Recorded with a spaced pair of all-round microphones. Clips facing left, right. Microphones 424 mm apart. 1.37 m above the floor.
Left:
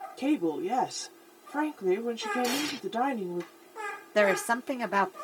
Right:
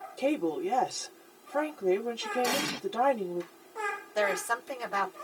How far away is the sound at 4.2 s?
About 1.3 m.